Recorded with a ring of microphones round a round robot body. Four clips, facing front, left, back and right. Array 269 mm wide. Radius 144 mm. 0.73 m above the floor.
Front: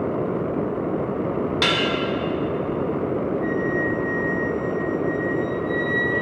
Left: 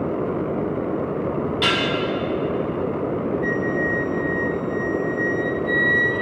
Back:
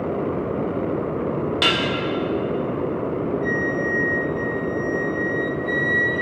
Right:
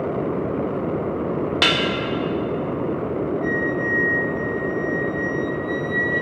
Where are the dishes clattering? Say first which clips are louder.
Even, back 1 dB; 85° right, 1.3 m.